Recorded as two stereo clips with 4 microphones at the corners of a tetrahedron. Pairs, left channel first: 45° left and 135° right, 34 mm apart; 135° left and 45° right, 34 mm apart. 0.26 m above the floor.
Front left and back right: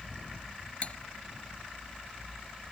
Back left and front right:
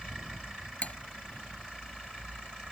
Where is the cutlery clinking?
95° left.